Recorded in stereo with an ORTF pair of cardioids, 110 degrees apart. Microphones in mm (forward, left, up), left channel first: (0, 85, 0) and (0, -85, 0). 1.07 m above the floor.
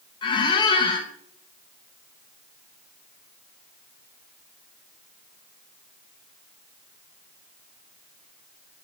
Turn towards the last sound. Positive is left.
turn(degrees=30)